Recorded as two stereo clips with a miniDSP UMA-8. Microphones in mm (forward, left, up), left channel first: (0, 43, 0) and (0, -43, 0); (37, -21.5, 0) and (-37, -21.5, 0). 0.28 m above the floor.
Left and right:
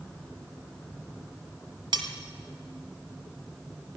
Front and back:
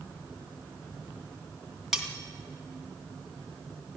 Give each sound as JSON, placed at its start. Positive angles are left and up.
{"t": 1.9, "sound": "cutlery clinking", "azimuth_deg": -95, "distance_m": 1.6}